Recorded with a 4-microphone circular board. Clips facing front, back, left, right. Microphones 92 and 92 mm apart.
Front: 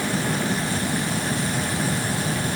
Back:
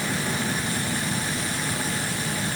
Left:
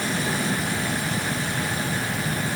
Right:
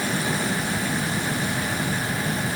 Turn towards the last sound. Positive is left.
No sound to turn to.